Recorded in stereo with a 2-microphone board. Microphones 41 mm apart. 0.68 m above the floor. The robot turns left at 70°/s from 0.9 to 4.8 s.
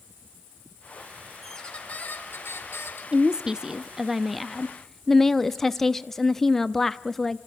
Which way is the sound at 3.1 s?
20° right (ahead or behind).